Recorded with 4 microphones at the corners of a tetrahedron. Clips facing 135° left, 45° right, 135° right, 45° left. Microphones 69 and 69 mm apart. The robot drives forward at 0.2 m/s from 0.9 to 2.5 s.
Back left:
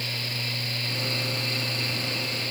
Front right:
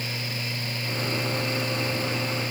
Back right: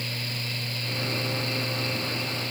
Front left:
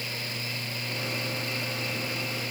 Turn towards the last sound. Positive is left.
No sound to turn to.